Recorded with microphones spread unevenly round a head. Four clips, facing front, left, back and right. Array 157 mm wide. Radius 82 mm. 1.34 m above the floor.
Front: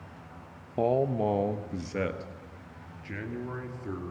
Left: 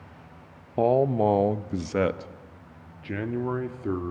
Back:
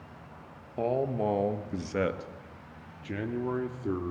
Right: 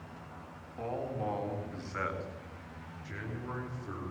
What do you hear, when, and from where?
0.8 s a man speaking: 70° left, 1.2 m; by 4.1 s 115° left, 3 m